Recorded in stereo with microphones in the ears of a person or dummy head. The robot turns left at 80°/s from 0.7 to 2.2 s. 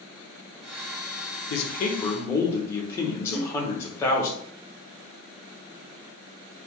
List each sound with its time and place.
1.5 s a man speaking: 75° left, 0.6 m; by 4.3 s 15° left, 0.6 m
3.3 s a whoosh: 50° left (ahead or behind), 0.7 m